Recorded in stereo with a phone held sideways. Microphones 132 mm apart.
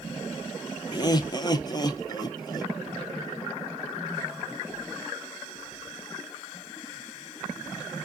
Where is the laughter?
30° left (ahead or behind), 0.8 m.